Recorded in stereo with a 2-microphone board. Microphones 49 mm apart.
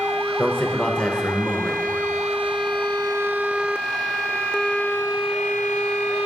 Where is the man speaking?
25° left (ahead or behind), 1.0 m.